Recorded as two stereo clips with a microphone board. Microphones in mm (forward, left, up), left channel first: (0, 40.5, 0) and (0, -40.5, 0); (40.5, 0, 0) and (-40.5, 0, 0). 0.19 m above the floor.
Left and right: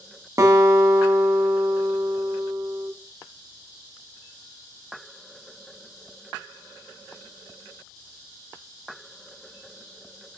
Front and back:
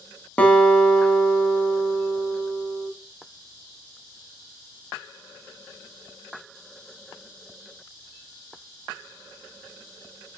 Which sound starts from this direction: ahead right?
A guitar, at 0.4 s.